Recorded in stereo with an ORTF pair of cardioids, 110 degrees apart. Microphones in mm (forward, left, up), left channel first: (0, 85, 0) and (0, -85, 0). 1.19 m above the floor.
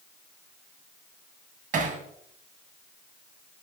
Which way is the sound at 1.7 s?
55° right.